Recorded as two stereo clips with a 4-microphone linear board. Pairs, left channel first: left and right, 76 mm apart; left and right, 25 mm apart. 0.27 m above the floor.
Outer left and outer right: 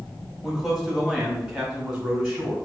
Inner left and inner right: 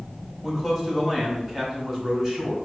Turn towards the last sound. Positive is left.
turn(degrees=-10)  # may be behind; listen again after turning